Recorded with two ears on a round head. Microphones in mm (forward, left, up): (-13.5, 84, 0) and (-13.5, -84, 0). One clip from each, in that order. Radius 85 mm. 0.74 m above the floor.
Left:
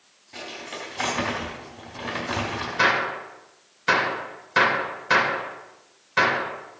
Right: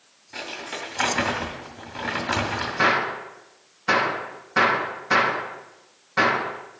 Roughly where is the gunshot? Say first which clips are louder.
Even; left.